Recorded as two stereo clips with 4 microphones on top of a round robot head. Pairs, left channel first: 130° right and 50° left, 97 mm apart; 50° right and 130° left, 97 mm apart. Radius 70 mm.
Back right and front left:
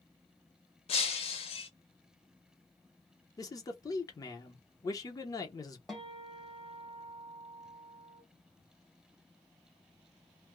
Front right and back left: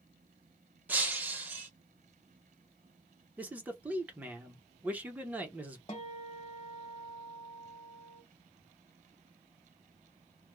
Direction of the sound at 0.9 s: 155° right.